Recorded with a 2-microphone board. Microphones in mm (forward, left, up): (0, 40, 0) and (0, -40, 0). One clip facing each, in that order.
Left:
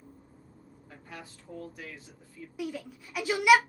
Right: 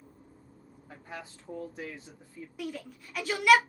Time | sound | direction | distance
0.9 | a man speaking | 25° right (ahead or behind) | 1.9 m
2.6 | a shout | 10° left (ahead or behind) | 0.8 m